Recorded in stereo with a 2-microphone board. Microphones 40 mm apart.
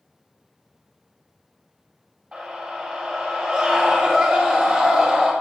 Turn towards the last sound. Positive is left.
turn(degrees=-10)  # may be behind; listen again after turning